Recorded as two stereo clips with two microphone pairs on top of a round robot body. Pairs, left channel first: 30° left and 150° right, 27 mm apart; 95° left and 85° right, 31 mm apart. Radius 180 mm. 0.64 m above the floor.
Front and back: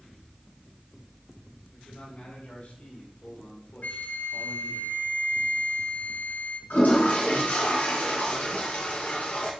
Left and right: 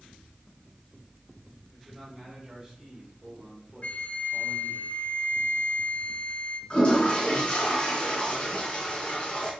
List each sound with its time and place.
1.7 s a man speaking: 10° right, 6 m; by 4.8 s 25° right, 2.5 m
3.8 s a flute: 50° left, 0.9 m
6.7 s a toilet flushing: 35° left, 3.5 m